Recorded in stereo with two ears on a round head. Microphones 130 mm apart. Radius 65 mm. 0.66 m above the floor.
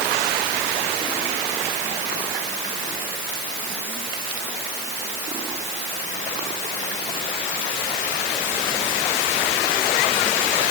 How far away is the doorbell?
I don't hear a doorbell.